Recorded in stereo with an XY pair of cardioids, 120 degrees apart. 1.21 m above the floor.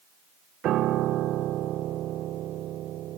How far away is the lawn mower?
I don't hear a lawn mower.